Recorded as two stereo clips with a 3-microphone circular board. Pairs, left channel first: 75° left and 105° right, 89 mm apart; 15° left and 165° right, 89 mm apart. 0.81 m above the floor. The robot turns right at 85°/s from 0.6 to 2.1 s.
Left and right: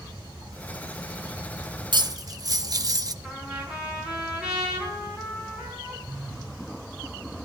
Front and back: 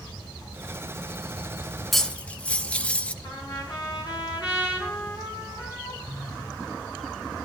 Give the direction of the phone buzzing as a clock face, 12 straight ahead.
1 o'clock.